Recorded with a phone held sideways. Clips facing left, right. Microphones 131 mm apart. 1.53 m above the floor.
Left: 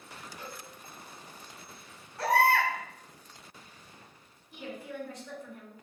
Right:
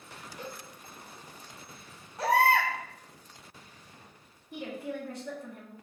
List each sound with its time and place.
0.4 s a cowbell: 65° right (ahead or behind), 1.4 m
2.2 s a baby crying: 20° right (ahead or behind), 1.2 m
4.5 s a woman speaking: 60° right (ahead or behind), 1.4 m